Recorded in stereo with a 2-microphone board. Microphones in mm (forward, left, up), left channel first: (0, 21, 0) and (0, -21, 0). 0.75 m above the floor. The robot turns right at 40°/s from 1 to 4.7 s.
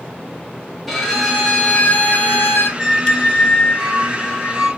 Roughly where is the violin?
Ahead.